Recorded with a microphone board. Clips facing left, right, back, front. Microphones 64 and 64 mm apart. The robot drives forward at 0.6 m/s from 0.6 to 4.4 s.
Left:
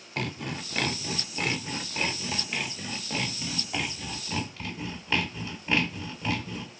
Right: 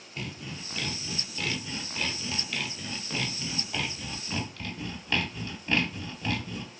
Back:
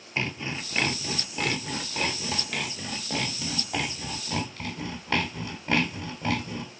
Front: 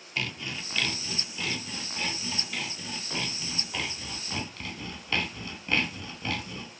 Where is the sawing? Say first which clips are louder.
Left 6 dB, back 3 dB; 115° left, 0.7 m; by 6.7 s 165° left, 2.5 m.